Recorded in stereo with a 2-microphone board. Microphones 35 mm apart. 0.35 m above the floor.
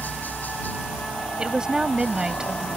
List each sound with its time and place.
0.0 s a helicopter: 55° left (ahead or behind)
1.4 s a woman speaking: 25° right (ahead or behind)